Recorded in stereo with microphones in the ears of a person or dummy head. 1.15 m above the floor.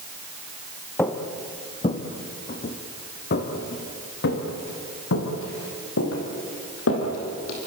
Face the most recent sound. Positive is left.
turn(degrees=75)  # may be behind; listen again after turning